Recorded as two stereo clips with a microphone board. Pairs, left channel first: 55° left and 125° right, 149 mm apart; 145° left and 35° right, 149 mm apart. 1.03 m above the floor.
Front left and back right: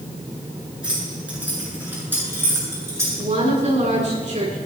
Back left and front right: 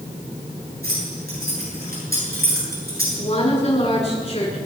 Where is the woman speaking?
165° right, 8 m.